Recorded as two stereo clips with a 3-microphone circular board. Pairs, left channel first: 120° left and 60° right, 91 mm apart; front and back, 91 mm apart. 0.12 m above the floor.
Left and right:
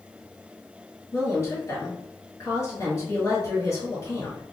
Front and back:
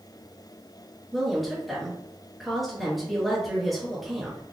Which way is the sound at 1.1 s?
90° left.